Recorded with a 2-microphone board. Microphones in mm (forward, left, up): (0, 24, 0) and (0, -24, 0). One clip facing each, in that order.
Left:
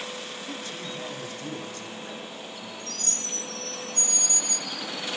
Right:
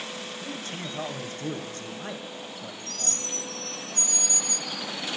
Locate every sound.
0.4 s a man speaking: 45° right (ahead or behind), 1.9 m